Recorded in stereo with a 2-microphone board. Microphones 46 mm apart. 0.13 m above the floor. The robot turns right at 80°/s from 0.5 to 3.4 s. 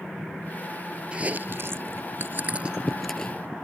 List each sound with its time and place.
1.1 s chewing: 25° right (ahead or behind); by 3.3 s 25° left (ahead or behind)